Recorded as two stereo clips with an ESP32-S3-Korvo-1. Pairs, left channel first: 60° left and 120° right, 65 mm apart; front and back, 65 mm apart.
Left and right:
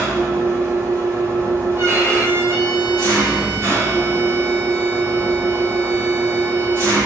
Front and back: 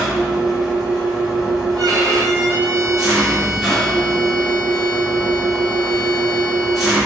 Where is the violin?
170° right, 1.4 m.